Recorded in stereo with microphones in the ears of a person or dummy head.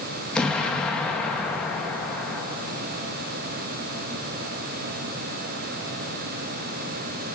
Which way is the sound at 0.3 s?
5° left (ahead or behind).